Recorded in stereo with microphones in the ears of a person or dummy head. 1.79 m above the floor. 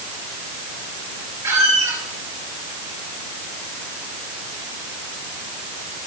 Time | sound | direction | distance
1.4 | a squeak | 15° right (ahead or behind) | 3 m